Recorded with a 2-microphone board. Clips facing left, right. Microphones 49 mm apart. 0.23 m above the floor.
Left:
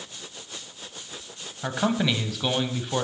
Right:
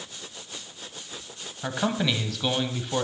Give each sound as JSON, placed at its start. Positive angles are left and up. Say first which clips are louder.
{"t": 1.6, "sound": "a man speaking", "louder": "left 2 dB", "side_deg": 5, "distance_m": 1.0}